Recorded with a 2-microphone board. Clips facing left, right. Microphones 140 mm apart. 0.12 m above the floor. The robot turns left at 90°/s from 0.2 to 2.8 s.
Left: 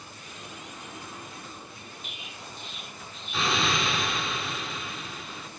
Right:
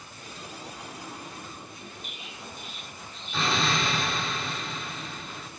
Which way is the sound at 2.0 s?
115° right.